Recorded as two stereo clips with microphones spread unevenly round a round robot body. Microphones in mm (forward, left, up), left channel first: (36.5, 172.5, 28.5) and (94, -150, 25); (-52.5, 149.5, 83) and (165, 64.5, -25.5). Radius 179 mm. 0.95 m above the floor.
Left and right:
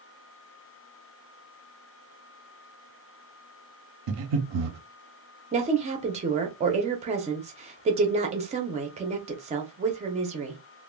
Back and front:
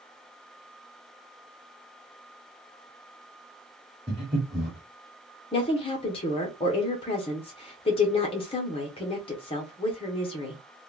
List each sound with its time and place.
4.1 s breathing: 125° right, 0.5 m
5.5 s a woman speaking: 100° right, 0.7 m